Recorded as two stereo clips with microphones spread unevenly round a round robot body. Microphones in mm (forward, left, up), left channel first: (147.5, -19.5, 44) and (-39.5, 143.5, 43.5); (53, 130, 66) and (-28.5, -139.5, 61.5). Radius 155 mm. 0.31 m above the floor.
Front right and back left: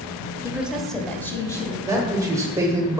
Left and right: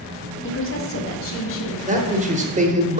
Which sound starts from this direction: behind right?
A man speaking, at 1.9 s.